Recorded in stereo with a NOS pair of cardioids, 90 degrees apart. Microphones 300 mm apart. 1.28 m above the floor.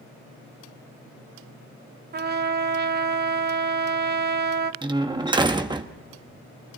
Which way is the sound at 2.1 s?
35° right.